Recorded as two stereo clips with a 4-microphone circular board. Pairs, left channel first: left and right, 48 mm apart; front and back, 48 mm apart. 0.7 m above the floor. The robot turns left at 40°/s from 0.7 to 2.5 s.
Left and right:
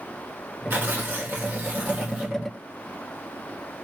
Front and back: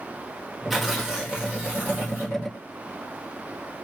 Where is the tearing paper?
95° right, 1.5 m; by 2.4 s 165° right, 1.5 m.